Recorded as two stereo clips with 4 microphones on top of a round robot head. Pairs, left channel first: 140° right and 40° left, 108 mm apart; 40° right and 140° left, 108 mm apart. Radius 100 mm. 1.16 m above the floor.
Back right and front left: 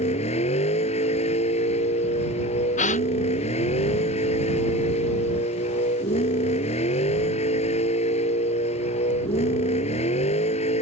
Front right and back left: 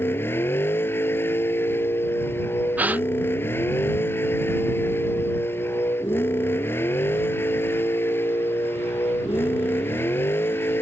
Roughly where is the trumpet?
No trumpet in this recording.